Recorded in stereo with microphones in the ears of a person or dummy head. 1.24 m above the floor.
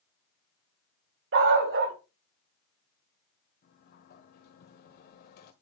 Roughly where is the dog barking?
Right.